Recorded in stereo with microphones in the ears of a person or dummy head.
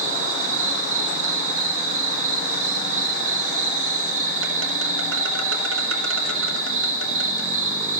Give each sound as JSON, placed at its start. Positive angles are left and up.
{"t": 0.0, "sound": "an insect", "side_deg": -75, "distance_m": 1.4}